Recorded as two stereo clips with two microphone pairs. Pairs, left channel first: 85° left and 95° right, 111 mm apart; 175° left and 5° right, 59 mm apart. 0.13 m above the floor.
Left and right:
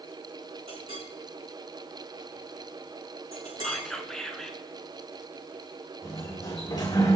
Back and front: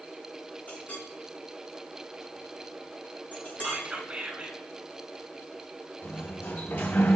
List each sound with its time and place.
0.7 s a clink: 125° right, 4.5 m
3.6 s whispering: 15° left, 1.1 m
6.0 s a sliding door: 135° left, 2.5 m